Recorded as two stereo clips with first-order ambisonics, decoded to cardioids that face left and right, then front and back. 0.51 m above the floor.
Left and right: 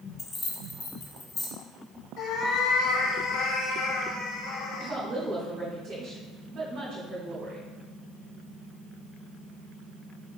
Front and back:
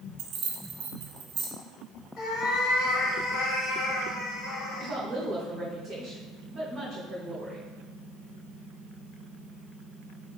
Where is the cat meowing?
45° left, 1.2 m.